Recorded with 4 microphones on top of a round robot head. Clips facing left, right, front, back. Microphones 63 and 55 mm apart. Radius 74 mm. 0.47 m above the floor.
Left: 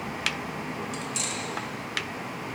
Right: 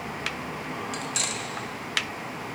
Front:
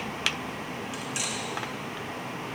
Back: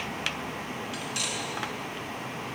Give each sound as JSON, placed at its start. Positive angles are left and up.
{"t": 0.9, "sound": "cutlery clinking", "azimuth_deg": -70, "distance_m": 0.5}